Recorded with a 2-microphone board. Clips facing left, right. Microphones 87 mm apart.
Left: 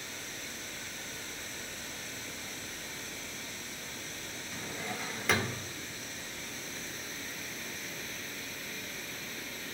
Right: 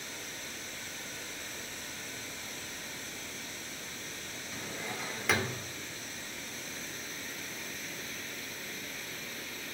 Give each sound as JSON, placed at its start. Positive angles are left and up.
{"t": 4.5, "sound": "a drawer", "side_deg": 0, "distance_m": 0.8}